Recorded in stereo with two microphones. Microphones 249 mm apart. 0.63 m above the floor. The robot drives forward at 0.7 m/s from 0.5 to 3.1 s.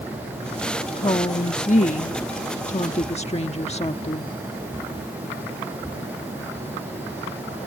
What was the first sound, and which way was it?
A woman speaking, 25° left (ahead or behind).